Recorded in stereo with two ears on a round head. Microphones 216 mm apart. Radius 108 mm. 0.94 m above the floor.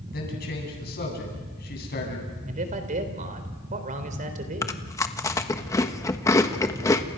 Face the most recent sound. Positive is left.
turn(degrees=15)  # may be behind; listen again after turning